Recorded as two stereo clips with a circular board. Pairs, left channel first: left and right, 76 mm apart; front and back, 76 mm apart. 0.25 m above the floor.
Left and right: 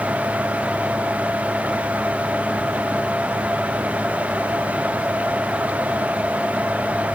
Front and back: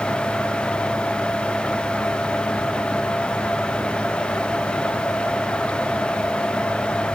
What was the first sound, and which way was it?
Only background noise.